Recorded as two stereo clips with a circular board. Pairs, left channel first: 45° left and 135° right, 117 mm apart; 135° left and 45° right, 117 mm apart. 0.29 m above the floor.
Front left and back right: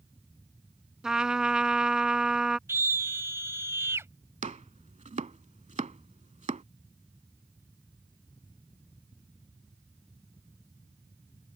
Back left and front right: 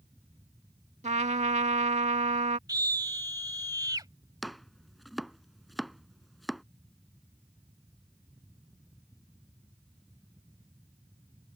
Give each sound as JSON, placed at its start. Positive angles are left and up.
{"t": 1.0, "sound": "a trumpet", "azimuth_deg": -50}
{"t": 2.7, "sound": "a scream", "azimuth_deg": -80}
{"t": 4.4, "sound": "chopping", "azimuth_deg": -135}